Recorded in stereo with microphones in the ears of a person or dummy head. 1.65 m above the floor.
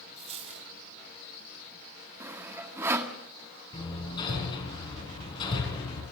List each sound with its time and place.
0.2 s a dropped coin: 40° right (ahead or behind), 4 m
2.2 s sawing: 15° right (ahead or behind), 1.7 m
3.7 s hammering: 30° left (ahead or behind), 6.5 m